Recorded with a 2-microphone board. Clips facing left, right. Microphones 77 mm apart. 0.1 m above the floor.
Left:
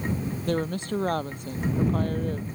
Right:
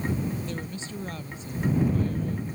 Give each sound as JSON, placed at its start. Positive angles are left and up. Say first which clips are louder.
{"t": 0.5, "sound": "a woman speaking", "louder": "left 8 dB", "side_deg": 60}